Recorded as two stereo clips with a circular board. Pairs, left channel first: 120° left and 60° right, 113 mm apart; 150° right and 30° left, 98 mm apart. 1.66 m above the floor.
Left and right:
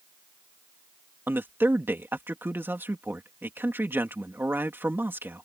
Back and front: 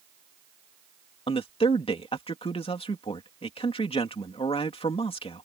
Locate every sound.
1.3 s a man speaking: 130° right